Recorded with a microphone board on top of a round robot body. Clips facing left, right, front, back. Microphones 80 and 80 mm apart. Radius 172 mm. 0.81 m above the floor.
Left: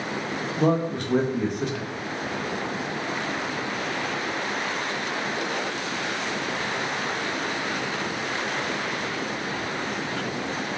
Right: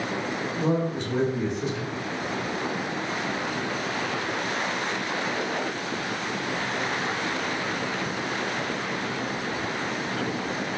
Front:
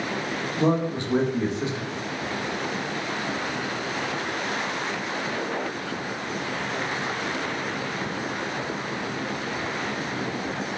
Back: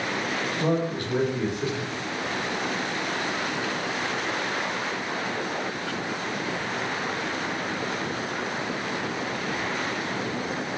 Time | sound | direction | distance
0.6 | a man speaking | 65° left | 0.9 m